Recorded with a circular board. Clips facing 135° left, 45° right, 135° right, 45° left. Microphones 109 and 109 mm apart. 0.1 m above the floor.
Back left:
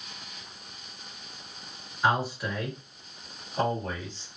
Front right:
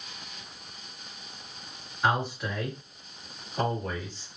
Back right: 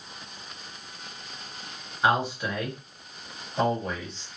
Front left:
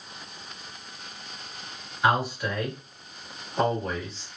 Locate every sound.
2.0 s a man speaking: 140° right, 1.7 m; by 4.3 s 110° left, 1.8 m